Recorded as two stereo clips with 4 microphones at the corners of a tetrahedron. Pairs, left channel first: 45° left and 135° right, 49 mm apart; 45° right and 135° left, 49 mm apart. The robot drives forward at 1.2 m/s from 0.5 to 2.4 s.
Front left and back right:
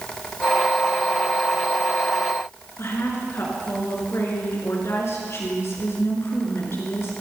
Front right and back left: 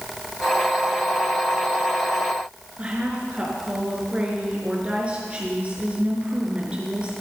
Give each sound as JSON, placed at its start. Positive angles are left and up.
{"t": 2.8, "sound": "a woman speaking", "azimuth_deg": 70, "distance_m": 4.5}